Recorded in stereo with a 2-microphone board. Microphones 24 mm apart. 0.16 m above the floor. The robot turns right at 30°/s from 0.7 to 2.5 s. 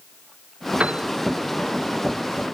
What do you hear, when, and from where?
0.8 s a piano: 55° right (ahead or behind); by 1.1 s 50° right (ahead or behind)